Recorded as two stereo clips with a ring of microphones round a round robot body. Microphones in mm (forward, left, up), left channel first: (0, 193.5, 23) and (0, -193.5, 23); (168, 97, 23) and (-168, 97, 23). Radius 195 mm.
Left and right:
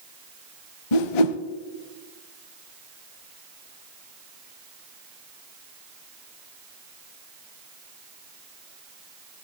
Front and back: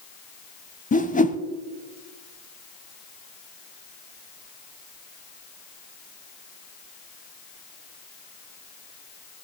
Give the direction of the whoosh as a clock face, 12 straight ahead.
10 o'clock.